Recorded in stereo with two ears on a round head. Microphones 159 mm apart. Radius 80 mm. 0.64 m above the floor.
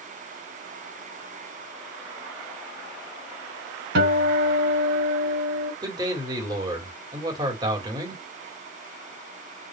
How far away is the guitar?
About 2.5 m.